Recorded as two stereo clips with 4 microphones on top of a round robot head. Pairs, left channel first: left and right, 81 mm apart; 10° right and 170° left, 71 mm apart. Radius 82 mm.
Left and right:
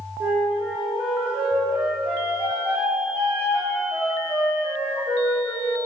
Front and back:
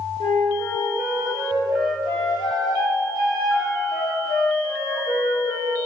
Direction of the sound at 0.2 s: 10° right.